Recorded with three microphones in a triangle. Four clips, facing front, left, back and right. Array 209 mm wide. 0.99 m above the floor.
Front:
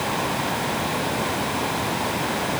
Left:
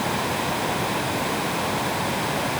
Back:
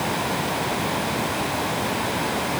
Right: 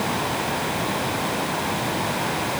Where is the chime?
No chime in this recording.